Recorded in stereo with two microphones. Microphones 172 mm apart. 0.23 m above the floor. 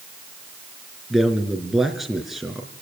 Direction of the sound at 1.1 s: Centre (ahead or behind).